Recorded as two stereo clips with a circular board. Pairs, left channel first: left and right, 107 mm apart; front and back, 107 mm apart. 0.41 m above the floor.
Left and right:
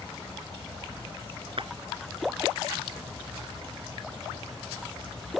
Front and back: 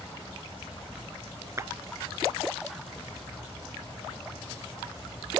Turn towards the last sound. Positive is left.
turn(degrees=-120)